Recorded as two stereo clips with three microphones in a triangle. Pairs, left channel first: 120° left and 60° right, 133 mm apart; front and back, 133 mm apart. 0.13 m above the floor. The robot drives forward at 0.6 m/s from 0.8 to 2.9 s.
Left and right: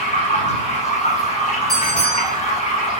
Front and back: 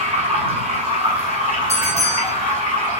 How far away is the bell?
About 3 m.